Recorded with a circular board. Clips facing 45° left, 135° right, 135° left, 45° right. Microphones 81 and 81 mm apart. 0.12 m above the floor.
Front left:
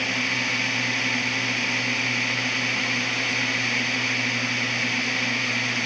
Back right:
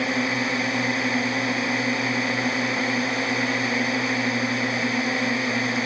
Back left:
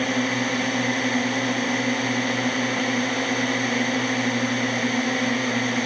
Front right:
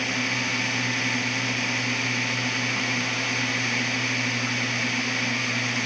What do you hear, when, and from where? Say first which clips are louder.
0.0 s a drone: back right 4 dB, back left 5 dB; 175° left